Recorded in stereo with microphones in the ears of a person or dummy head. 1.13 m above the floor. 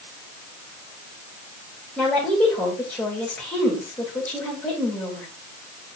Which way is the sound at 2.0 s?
10° left (ahead or behind).